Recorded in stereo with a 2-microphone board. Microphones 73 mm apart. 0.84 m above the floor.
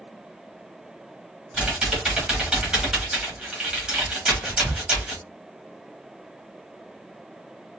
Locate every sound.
1.5 s typing on a keyboard: 10° right (ahead or behind), 1.3 m
4.4 s whispering: 20° right (ahead or behind), 0.6 m